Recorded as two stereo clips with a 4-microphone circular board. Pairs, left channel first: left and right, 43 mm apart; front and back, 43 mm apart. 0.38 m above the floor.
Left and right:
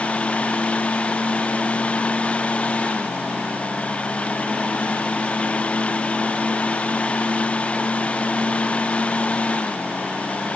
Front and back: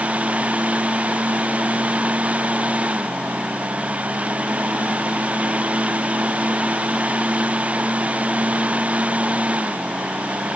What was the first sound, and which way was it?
Only background noise.